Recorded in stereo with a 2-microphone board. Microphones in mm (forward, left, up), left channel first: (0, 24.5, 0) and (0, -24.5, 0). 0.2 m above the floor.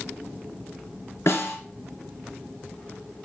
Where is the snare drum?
65° left (ahead or behind), 2 m.